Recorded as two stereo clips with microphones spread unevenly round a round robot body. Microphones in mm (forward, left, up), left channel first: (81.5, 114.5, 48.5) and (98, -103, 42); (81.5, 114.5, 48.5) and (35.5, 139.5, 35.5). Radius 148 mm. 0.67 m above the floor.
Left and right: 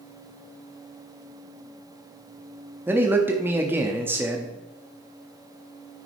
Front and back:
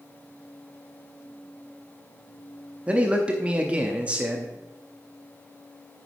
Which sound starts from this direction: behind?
A man speaking, at 2.9 s.